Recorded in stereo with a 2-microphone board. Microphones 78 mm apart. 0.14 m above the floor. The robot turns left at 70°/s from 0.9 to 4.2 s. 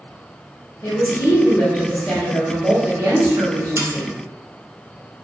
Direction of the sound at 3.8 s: 40° right (ahead or behind).